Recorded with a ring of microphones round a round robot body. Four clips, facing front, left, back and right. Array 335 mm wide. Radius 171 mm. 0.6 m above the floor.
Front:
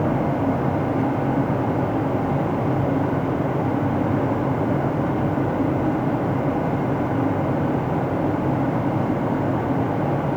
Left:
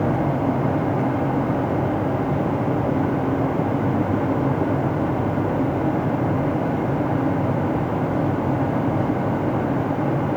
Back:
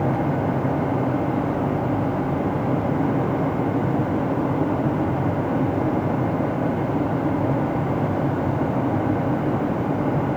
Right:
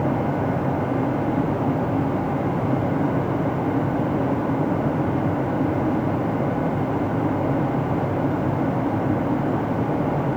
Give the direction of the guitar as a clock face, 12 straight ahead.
No guitar in this recording.